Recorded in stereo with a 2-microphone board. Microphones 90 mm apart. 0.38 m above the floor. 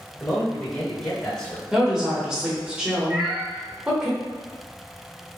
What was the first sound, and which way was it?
A man speaking, 5° left (ahead or behind).